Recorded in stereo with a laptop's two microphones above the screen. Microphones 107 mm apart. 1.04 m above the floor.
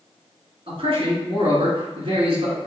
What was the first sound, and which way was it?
A man speaking, 55° right (ahead or behind).